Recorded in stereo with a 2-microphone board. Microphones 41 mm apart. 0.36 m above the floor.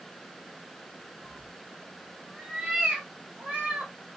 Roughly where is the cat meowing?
Centre.